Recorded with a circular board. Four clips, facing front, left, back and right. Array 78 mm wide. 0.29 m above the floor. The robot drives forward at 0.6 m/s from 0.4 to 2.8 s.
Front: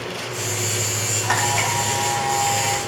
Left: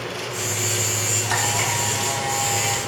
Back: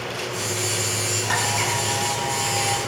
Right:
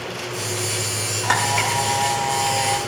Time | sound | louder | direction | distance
1.2 | a camera shutter | right 5 dB, front 4 dB | 70° right | 8.5 m